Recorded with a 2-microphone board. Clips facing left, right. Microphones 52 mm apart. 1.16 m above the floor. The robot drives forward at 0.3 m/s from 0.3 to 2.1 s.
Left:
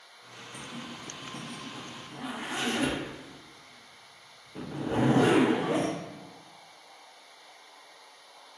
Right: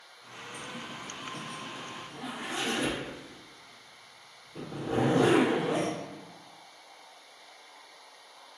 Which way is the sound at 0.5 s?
45° left (ahead or behind).